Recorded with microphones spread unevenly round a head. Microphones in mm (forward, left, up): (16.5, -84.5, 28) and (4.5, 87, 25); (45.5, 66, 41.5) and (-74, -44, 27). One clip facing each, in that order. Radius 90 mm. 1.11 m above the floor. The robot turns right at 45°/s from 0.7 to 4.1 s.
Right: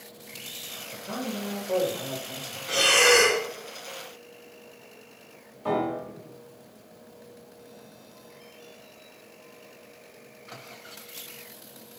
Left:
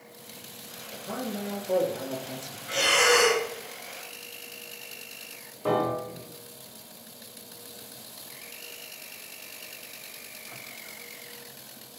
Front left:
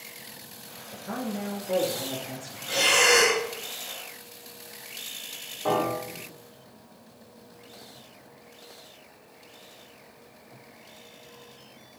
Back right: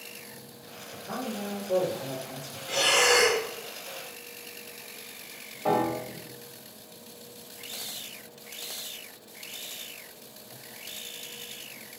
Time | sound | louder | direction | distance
0.9 | a man speaking | right 1 dB, front left 2 dB | 10° right | 2.5 m
2.7 | breathing | right 2 dB, front left 1 dB | 45° right | 1.2 m
5.7 | a piano | left 1 dB, even | 130° left | 1.6 m